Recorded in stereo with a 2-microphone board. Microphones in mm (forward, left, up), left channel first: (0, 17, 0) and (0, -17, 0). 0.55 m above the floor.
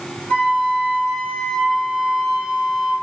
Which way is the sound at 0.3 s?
65° left (ahead or behind).